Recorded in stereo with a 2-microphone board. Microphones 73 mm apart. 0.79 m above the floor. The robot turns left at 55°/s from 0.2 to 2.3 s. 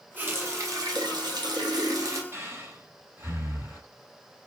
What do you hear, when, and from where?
0.2 s a running tap: 25° right, 0.8 m; by 2.2 s 135° right, 0.8 m
2.3 s breathing: 35° right (ahead or behind), 2.5 m